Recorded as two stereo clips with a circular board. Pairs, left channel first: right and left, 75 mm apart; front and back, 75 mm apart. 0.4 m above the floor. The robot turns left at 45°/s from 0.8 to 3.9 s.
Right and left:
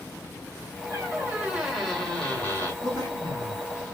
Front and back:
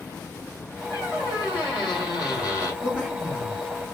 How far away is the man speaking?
About 3 m.